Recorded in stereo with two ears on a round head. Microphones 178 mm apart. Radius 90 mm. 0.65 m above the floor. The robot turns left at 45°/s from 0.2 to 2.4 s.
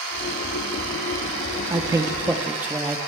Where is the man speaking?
15° right (ahead or behind), 0.6 m; by 3.0 s 10° right (ahead or behind), 0.6 m.